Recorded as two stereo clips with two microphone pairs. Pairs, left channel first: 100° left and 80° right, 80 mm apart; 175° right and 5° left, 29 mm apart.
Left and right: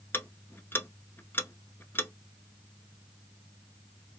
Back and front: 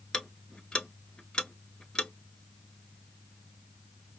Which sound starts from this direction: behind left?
Ticking, at 0.1 s.